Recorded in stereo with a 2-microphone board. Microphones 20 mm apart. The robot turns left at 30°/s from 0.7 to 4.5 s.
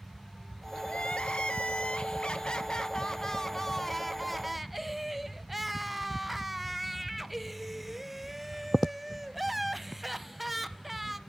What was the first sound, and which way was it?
Crying, 100° left.